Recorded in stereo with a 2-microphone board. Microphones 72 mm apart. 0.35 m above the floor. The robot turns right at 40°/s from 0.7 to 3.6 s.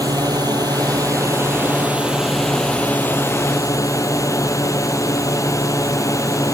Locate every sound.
0.0 s a drone: 70° right; by 6.5 s 50° left